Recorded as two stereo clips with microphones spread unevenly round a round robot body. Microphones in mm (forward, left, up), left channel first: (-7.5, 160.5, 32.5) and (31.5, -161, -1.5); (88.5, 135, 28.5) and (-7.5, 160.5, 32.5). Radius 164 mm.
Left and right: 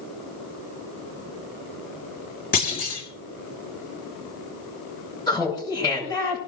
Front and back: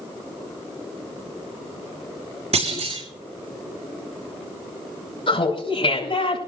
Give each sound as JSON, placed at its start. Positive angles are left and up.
{"t": 2.5, "sound": "a clunk", "azimuth_deg": 165, "distance_m": 4.5}
{"t": 5.3, "sound": "laughter", "azimuth_deg": 20, "distance_m": 6.0}